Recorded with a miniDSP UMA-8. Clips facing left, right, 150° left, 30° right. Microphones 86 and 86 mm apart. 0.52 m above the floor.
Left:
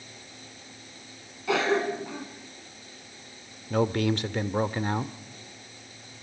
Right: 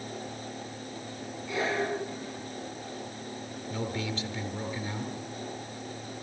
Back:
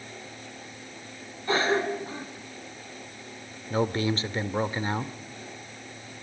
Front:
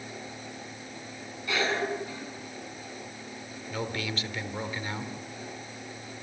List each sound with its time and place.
1.5 s a cough: 95° left, 6 m
3.7 s a man speaking: 100° left, 1.4 m